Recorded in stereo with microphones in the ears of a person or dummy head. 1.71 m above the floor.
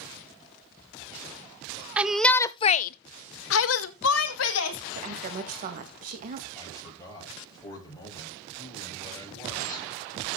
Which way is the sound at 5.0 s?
45° right (ahead or behind).